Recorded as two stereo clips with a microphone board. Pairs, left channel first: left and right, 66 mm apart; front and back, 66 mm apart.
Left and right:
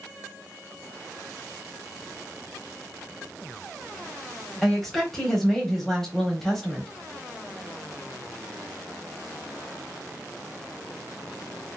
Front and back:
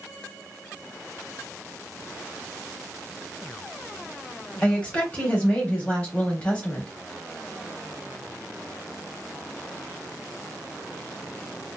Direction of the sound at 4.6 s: 20° left.